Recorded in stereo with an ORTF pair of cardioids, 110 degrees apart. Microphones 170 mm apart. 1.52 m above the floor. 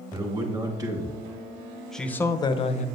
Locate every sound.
0.1 s a man speaking: 30° right, 2.0 m; by 2.9 s 60° left, 0.7 m